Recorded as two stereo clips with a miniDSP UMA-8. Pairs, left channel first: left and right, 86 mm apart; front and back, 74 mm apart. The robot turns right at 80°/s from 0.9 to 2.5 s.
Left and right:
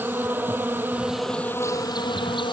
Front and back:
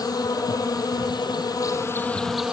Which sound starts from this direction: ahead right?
An insect, at 0.0 s.